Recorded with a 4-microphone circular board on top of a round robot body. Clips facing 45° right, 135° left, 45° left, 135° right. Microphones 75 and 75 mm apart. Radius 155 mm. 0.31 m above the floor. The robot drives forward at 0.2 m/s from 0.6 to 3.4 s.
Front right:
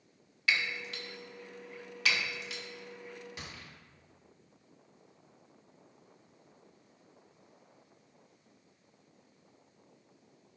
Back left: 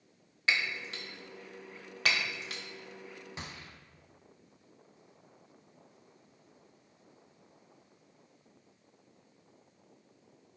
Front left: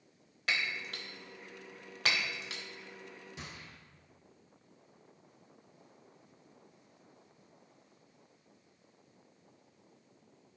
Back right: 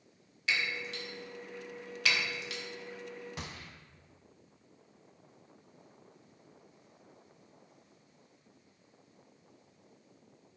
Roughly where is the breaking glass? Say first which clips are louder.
Back left 1 dB, back right 1 dB; left.